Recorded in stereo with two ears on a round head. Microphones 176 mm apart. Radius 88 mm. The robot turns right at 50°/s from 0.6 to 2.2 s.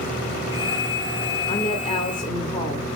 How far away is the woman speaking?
About 1.0 m.